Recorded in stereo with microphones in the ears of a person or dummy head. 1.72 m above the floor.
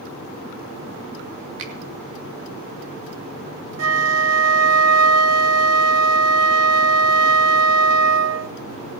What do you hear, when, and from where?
1.6 s a finger snap: 70° right (ahead or behind), 2.5 m
3.8 s a flute: 80° right, 0.7 m